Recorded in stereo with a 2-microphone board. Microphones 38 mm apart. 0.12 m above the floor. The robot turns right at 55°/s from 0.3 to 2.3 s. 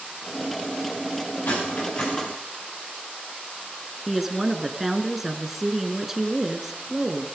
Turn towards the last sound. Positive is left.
turn(degrees=-5)  # may be behind; listen again after turning